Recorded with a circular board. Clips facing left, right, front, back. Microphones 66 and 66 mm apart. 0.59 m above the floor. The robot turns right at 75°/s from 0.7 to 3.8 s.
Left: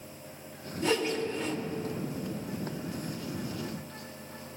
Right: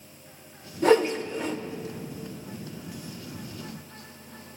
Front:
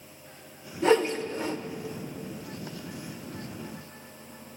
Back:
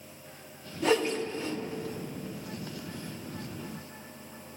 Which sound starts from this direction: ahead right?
A whoosh, at 0.8 s.